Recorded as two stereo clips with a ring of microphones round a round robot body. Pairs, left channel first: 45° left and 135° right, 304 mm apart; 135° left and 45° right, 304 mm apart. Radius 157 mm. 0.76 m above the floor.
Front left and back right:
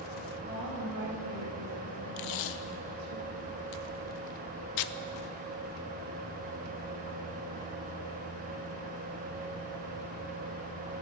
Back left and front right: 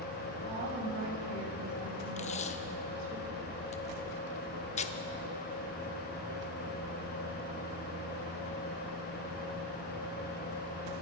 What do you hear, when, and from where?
0.4 s a woman speaking: 80° right, 5 m; by 3.2 s 95° right, 4 m
2.2 s tape being pulled: 65° left, 0.6 m